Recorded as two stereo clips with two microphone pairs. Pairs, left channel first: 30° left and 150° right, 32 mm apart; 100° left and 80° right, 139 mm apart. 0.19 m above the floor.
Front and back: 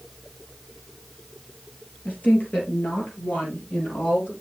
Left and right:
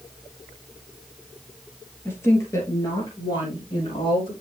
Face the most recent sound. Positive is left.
turn(degrees=50)